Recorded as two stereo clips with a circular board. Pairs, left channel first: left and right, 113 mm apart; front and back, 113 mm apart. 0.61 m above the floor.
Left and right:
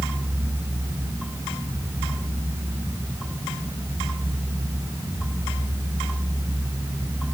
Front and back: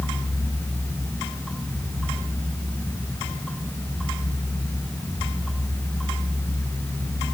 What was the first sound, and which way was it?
Only background noise.